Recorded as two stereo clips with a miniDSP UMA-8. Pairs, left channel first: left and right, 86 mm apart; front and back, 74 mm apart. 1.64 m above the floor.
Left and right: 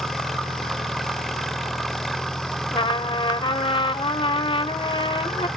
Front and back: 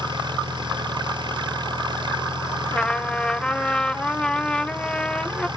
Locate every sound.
0.0 s an engine running: straight behind
2.7 s a trumpet: 80° left